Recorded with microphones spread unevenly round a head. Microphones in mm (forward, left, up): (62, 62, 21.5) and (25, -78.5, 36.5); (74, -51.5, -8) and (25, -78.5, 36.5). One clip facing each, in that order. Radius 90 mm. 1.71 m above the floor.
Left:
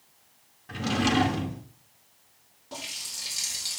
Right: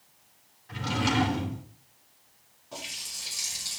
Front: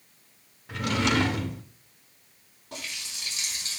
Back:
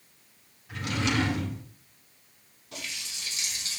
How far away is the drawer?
About 1.8 m.